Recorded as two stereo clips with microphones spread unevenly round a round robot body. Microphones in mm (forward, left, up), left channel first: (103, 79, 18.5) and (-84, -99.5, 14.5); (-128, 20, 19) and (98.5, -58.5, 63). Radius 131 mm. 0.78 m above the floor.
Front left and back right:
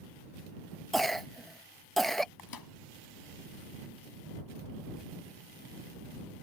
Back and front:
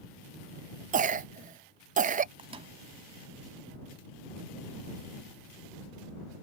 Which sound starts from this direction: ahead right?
A cough, at 0.9 s.